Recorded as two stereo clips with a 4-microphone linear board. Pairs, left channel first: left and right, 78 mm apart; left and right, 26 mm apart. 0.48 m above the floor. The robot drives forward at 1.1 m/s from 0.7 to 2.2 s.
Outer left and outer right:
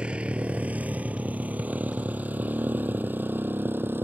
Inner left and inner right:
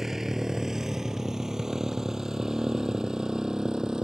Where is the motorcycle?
15° right (ahead or behind); by 4.0 s 30° right (ahead or behind).